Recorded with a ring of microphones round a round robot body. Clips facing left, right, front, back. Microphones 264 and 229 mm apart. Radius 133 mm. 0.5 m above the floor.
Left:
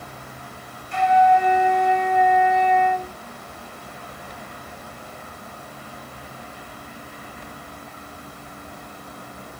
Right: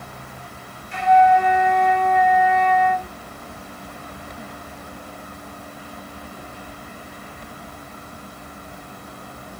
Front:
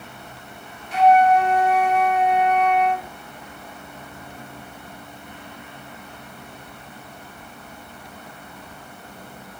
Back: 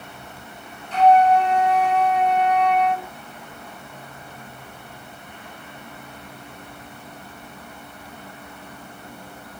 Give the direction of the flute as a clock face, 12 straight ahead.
9 o'clock.